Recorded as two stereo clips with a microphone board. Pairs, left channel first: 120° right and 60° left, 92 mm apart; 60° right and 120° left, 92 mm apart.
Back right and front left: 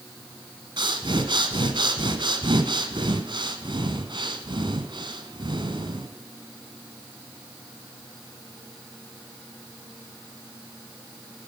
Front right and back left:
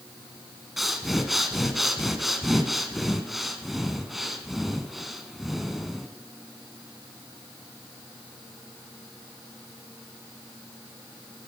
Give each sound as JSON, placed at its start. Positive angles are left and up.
{"t": 0.8, "sound": "breathing", "azimuth_deg": 30, "distance_m": 1.3}